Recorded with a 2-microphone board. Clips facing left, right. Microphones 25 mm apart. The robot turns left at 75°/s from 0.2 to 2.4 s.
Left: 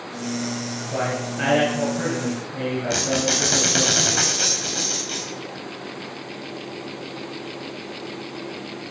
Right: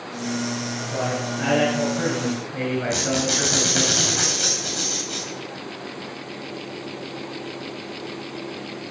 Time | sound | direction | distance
0.9 | a man speaking | 75° left | 5.5 m
2.9 | a squeak | 55° left (ahead or behind) | 4 m